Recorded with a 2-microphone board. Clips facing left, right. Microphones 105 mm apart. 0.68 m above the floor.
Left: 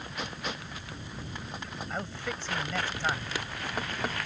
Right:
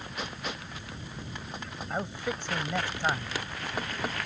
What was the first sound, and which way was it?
A man speaking, 15° right (ahead or behind).